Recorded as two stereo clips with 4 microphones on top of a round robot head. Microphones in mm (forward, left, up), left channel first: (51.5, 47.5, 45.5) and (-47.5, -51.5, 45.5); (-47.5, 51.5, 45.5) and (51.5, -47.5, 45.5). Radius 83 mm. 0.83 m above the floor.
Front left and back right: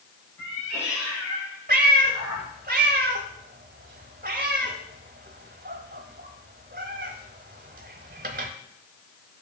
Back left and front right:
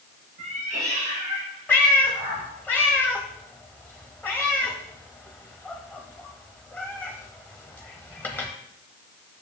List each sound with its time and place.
0.4 s a cat meowing: 5° right, 4 m; by 2.5 s 25° left, 3 m
1.7 s a cat meowing: 150° right, 0.7 m